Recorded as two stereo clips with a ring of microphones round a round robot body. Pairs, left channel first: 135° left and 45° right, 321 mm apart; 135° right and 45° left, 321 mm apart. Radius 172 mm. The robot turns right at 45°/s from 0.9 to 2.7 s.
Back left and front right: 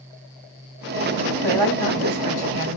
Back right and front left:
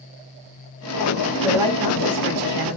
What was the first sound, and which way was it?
A woman speaking, 40° right.